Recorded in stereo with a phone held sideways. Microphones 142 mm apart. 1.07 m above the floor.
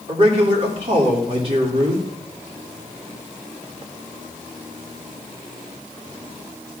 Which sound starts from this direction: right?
A man speaking, at 0.1 s.